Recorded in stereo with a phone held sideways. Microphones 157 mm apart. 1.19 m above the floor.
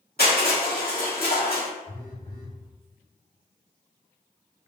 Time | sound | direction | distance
0.2 | crushing | 70° left (ahead or behind) | 1.4 m
1.9 | a phone buzzing | 70° left (ahead or behind) | 1.7 m